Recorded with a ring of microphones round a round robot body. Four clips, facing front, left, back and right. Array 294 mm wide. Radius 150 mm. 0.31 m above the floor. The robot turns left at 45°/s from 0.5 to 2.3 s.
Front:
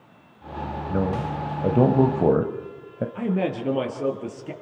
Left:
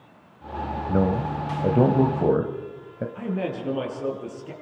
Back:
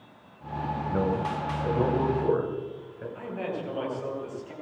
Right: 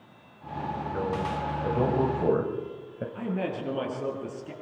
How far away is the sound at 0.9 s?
About 1.4 m.